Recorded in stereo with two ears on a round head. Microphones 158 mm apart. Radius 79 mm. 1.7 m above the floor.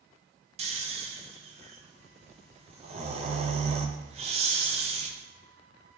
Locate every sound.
0.6 s snoring: 35° right (ahead or behind), 0.6 m